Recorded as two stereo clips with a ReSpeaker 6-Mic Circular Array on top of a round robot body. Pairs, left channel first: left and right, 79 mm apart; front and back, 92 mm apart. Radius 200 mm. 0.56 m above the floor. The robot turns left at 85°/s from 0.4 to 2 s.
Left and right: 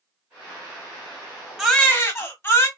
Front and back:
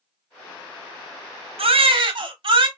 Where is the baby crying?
175° right, 0.9 m; by 2.7 s 150° left, 0.9 m.